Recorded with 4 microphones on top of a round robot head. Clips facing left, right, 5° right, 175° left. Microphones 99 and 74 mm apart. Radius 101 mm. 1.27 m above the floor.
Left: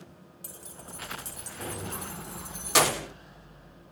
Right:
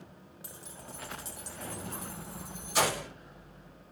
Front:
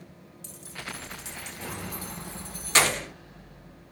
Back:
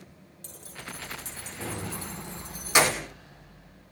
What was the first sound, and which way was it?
Keys jangling, 135° left.